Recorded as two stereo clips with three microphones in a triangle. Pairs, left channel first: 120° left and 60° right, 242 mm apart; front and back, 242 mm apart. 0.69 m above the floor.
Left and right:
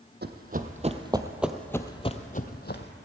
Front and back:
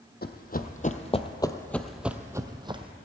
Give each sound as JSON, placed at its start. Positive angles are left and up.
{"t": 0.2, "sound": "running footsteps", "azimuth_deg": -30, "distance_m": 1.0}